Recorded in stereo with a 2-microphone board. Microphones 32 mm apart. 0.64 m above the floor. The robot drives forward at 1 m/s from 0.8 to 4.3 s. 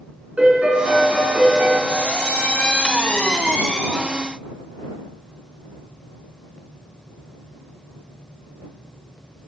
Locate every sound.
0.4 s a piano: 50° right (ahead or behind), 3 m; by 1.8 s 70° right (ahead or behind), 2.5 m
1.9 s a squeak: 80° left, 2 m; by 4.0 s 40° left (ahead or behind), 3 m